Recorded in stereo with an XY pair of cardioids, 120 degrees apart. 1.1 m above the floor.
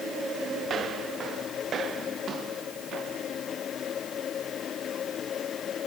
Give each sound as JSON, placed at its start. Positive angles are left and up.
{"t": 0.6, "sound": "footsteps", "azimuth_deg": -45}